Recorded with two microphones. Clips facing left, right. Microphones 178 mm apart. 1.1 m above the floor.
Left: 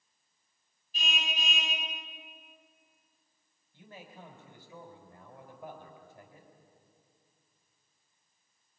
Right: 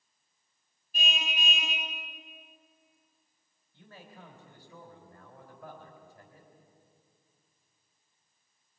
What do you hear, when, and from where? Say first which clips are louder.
0.9 s a car horn: right 2 dB; 55° right (ahead or behind), 5 m
3.7 s a man speaking: left 1 dB; 10° left (ahead or behind), 4.5 m